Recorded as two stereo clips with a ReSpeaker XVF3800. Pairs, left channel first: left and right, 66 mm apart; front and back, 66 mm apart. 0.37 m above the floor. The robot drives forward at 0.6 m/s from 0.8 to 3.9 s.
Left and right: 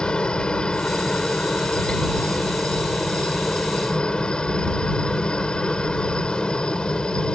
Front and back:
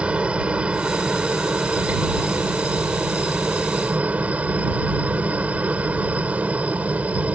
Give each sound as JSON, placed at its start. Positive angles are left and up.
{"t": 0.0, "sound": "a helicopter", "azimuth_deg": 140}